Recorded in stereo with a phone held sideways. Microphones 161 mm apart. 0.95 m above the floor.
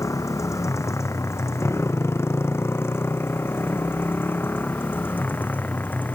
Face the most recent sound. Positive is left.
turn(degrees=10)  # may be behind; listen again after turning